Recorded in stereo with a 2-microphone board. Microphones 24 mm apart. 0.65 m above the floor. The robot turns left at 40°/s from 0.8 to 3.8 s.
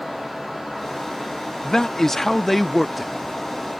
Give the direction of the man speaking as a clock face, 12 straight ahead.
10 o'clock.